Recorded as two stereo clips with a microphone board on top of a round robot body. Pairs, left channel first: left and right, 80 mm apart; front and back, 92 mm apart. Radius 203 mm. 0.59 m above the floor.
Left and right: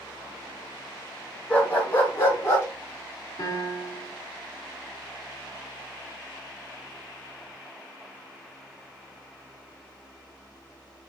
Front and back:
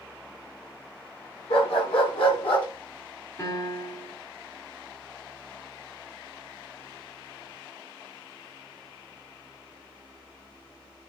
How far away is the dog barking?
About 3.5 m.